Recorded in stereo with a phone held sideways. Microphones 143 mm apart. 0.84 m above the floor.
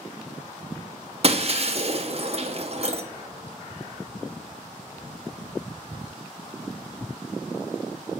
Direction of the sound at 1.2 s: 45° right (ahead or behind).